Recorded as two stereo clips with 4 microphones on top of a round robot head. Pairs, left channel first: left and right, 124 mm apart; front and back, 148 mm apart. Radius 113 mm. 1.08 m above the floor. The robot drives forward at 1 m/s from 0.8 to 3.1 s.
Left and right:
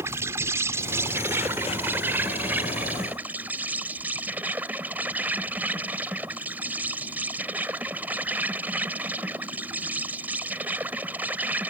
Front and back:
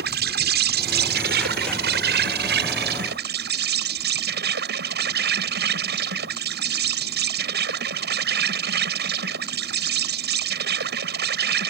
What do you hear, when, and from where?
0.0 s an insect: 165° right; by 11.7 s 170° right